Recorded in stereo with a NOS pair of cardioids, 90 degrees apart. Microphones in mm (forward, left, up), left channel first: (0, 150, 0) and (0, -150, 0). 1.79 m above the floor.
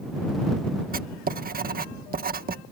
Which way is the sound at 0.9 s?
30° right.